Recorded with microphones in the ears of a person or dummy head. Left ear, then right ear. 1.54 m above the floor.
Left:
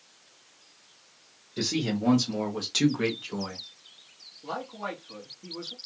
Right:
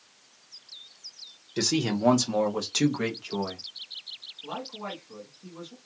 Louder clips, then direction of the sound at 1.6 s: Right 3 dB; 80° right.